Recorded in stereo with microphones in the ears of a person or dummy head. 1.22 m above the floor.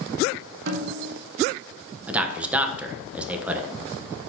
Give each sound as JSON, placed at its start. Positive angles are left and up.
{"t": 0.7, "sound": "a snare drum", "side_deg": -60, "distance_m": 1.5}
{"t": 2.1, "sound": "a man speaking", "side_deg": -5, "distance_m": 1.0}